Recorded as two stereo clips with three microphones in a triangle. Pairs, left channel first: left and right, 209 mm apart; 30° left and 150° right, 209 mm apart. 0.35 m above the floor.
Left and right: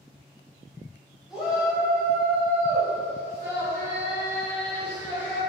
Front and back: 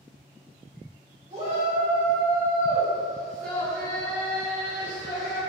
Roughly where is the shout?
Behind.